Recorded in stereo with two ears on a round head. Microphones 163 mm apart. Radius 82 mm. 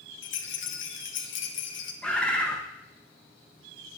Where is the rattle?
75° left (ahead or behind), 1.3 m.